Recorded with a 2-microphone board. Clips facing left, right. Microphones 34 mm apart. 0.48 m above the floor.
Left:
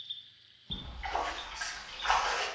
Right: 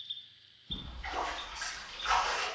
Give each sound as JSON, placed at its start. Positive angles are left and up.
{"t": 0.7, "sound": "a splash", "side_deg": 45, "distance_m": 1.6}